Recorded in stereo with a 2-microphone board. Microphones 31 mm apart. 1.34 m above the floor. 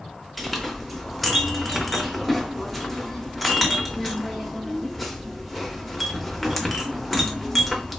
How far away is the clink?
About 0.6 m.